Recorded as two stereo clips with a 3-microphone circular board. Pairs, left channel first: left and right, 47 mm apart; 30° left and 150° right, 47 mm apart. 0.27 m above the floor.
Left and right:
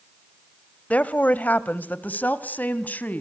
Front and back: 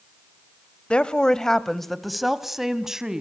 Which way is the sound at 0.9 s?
75° left.